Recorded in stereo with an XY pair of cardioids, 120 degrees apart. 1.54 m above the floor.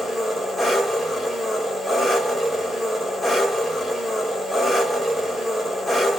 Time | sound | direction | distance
0.0 | an engine running | 15° left | 1.4 m